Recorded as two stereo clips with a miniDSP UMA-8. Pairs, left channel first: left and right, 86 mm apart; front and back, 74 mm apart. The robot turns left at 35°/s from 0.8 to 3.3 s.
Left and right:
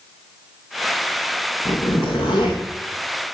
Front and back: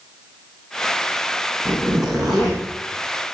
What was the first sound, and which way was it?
A zipper, 110° left.